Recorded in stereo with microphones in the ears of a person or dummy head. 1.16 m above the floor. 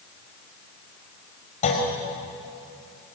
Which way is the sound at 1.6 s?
30° left (ahead or behind).